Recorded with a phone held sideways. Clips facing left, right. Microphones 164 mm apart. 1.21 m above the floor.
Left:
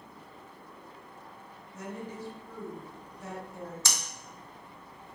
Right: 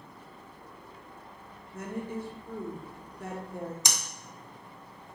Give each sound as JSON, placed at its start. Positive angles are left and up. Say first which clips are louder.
{"t": 1.7, "sound": "a woman speaking", "louder": "right 4 dB", "side_deg": -55, "distance_m": 0.7}
{"t": 3.9, "sound": "breathing", "louder": "right 1 dB", "side_deg": -15, "distance_m": 0.6}